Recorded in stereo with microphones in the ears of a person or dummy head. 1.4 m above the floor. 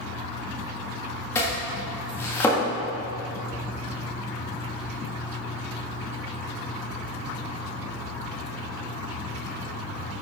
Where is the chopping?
10° left (ahead or behind), 1.5 m.